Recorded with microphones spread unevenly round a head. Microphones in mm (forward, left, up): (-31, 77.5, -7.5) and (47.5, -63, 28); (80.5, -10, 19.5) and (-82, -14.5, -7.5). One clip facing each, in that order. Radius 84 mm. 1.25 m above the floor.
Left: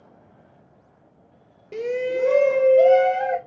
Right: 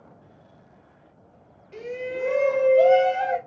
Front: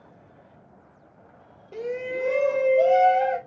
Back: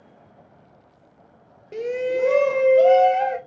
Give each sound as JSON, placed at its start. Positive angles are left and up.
{"t": 1.7, "sound": "a shout", "azimuth_deg": 115, "distance_m": 0.7}